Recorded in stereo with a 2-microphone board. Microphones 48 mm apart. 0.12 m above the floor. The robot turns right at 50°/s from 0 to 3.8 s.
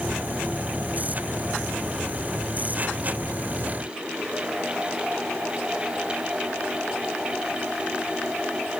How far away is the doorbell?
No doorbell in this recording.